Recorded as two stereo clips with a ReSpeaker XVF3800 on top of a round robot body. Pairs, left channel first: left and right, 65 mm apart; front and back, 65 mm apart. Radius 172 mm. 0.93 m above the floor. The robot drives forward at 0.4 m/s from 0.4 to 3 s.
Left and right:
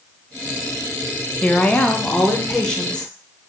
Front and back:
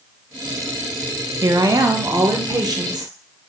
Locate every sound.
1.4 s a woman speaking: 155° left, 0.6 m; by 3.1 s 170° left, 1.2 m